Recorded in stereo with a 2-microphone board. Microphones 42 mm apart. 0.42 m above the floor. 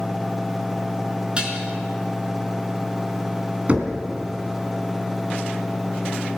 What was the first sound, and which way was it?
Dishes clattering, 25° right (ahead or behind).